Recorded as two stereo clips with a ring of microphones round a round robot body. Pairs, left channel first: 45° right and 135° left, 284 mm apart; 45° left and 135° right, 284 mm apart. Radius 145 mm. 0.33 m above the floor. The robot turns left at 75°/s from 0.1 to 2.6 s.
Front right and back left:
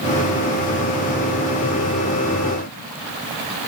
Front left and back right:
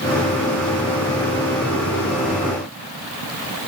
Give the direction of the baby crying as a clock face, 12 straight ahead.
I don't hear a baby crying.